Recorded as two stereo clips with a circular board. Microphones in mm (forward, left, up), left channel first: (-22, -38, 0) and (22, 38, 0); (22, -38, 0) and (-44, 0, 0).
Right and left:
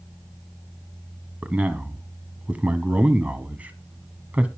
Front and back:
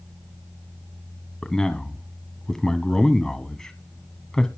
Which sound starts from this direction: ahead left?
A man speaking, at 1.4 s.